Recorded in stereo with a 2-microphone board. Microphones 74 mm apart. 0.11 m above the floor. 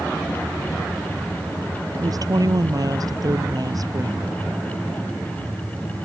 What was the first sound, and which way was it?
A woman speaking, 55° right (ahead or behind).